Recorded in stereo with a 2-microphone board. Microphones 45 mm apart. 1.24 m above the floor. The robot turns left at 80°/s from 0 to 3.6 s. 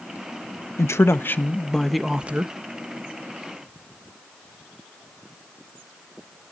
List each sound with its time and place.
0.8 s a man speaking: 90° left, 1.1 m; by 2.5 s 50° right, 1.1 m